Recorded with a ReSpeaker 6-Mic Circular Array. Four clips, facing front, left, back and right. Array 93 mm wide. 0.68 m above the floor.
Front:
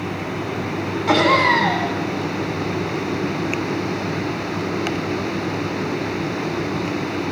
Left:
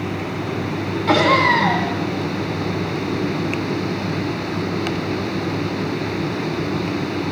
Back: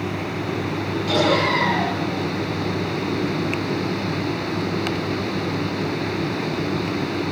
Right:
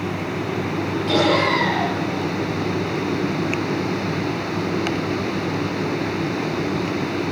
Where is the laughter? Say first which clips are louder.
Left 3 dB, front 4 dB; 45° left, 6.5 m.